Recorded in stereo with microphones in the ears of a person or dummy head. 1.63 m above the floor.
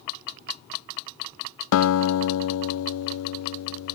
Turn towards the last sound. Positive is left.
turn(degrees=80)